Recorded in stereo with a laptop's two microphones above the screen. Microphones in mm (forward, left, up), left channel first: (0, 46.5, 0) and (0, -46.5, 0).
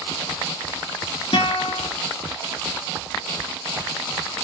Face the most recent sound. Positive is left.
turn(degrees=65)  # may be behind; listen again after turning